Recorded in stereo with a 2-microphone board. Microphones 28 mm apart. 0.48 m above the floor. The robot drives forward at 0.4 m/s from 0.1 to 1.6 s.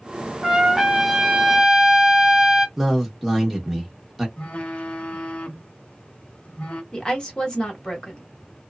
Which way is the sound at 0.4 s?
10° right (ahead or behind).